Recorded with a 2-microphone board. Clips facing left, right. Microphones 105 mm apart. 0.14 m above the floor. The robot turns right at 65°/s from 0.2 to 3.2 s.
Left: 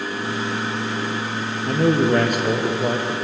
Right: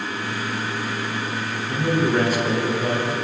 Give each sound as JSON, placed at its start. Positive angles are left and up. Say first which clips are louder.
{"t": 1.7, "sound": "a man speaking", "louder": "left 4 dB", "azimuth_deg": 75, "distance_m": 4.5}